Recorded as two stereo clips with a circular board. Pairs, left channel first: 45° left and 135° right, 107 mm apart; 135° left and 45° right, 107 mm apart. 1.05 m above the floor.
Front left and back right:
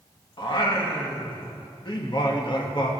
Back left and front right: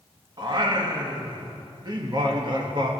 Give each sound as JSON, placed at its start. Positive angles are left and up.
{"t": 0.4, "sound": "singing", "azimuth_deg": 0, "distance_m": 1.4}